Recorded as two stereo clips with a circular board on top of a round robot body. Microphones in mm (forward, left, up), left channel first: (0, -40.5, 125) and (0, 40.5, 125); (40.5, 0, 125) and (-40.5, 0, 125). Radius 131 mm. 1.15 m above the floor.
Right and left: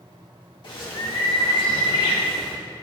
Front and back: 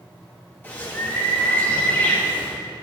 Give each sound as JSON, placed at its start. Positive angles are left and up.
{"t": 0.6, "sound": "a bird", "azimuth_deg": -65, "distance_m": 2.0}